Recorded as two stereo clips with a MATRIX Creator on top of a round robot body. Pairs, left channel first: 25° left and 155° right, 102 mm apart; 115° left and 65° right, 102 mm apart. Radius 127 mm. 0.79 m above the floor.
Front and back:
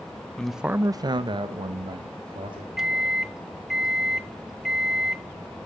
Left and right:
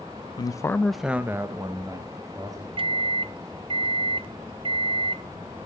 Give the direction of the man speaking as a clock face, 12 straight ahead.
9 o'clock.